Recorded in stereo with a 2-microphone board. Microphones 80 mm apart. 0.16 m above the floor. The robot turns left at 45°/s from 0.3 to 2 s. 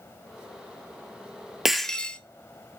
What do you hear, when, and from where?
1.6 s breaking glass: 5° right (ahead or behind), 0.6 m; by 2.2 s 10° left (ahead or behind), 0.6 m